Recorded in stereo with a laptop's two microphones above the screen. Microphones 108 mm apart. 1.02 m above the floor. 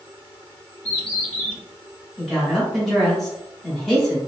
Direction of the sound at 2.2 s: 5° left (ahead or behind).